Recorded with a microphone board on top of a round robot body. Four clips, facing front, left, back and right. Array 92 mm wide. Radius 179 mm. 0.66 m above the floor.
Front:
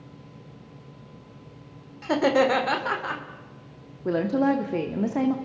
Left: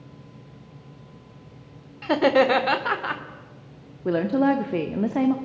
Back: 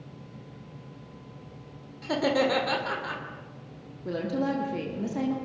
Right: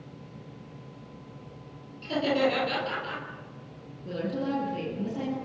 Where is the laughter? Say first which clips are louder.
Left 7 dB, front 4 dB; 70° left, 3 m.